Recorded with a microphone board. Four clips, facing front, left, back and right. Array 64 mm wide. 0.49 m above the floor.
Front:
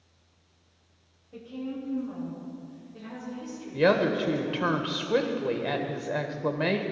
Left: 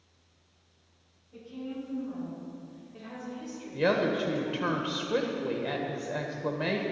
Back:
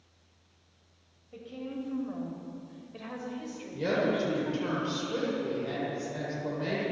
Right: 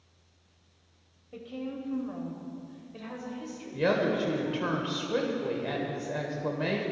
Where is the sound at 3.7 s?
10° left, 1.6 m.